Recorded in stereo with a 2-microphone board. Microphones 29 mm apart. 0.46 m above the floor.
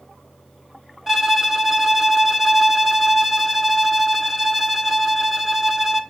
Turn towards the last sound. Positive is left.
turn(degrees=-10)  # may be behind; listen again after turning